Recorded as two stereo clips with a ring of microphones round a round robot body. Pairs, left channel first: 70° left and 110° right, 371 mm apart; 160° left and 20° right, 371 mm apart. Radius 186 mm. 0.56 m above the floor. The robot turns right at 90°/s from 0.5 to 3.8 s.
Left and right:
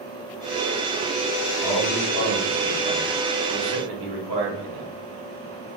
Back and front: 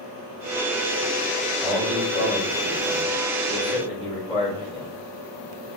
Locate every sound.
1.6 s a man speaking: 40° left, 1.4 m; by 4.9 s 125° right, 1.4 m